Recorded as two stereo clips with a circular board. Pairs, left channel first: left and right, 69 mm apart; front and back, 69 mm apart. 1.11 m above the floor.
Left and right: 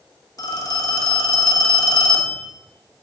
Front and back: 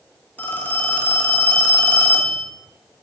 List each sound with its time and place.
0.4 s a phone ringing: 65° left, 1.0 m